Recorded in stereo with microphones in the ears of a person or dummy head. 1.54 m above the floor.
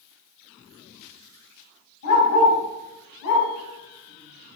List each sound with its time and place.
2.0 s a dog barking: 65° left (ahead or behind), 3 m; by 4.6 s 55° left (ahead or behind), 3 m